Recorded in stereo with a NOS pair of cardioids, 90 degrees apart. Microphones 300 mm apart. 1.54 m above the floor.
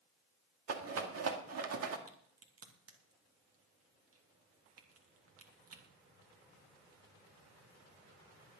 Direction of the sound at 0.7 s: 55° right.